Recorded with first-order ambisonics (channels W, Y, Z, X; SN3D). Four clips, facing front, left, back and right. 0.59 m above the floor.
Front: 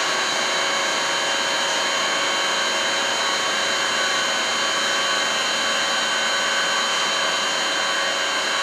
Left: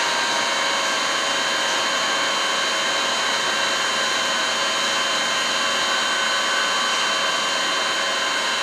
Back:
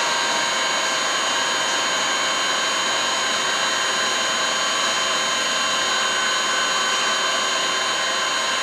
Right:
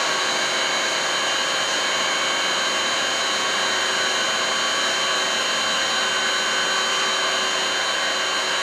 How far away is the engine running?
About 0.8 m.